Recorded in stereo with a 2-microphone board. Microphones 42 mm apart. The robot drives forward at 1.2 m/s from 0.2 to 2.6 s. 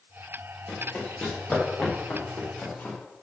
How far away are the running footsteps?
About 5.5 m.